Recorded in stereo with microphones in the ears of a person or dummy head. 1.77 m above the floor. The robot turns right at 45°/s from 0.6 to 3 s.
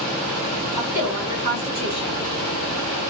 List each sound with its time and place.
0.8 s a woman speaking: 105° left, 1.7 m; by 2.2 s 170° left, 1.7 m